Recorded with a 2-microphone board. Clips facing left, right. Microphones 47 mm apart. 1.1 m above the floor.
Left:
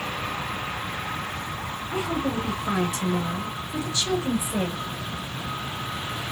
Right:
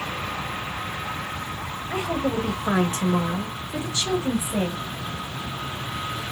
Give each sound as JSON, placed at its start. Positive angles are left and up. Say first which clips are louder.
{"t": 1.9, "sound": "a woman speaking", "louder": "right 2 dB", "side_deg": -65, "distance_m": 1.1}